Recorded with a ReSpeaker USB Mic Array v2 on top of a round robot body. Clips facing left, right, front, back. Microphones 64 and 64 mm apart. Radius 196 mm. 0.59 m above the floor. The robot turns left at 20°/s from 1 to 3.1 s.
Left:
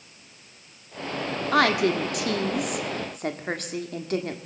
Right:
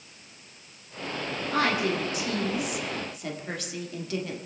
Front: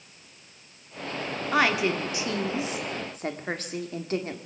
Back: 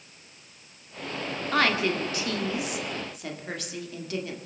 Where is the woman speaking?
80° left, 1.7 m; by 4.4 s 50° left, 1.7 m.